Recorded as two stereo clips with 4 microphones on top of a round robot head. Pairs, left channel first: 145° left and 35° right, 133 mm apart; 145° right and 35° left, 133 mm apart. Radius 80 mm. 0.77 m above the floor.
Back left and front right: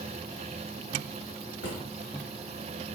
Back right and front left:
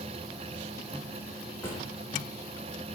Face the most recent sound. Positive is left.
turn(degrees=140)